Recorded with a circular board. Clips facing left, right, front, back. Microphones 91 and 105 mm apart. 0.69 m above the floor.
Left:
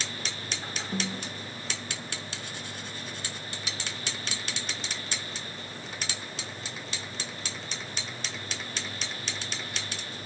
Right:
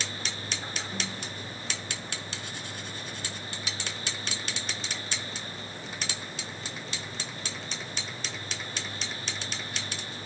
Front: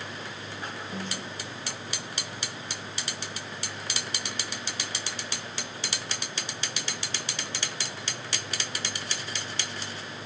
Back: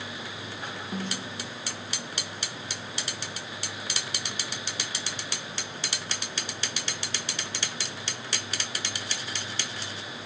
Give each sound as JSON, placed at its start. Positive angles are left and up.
{"t": 0.9, "sound": "a snare drum", "azimuth_deg": 140, "distance_m": 7.5}